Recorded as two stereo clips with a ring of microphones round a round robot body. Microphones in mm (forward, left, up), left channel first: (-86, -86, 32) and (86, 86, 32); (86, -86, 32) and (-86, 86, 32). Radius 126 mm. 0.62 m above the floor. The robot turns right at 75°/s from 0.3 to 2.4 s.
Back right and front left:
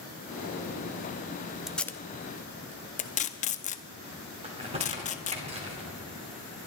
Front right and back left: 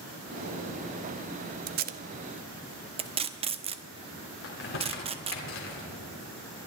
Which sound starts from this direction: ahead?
Crumpling, at 4.4 s.